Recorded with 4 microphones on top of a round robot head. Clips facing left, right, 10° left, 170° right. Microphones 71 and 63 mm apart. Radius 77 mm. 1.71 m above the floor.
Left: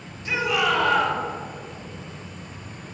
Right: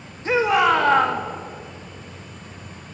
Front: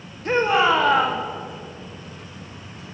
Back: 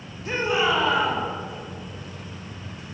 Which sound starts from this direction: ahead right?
A shout, at 0.2 s.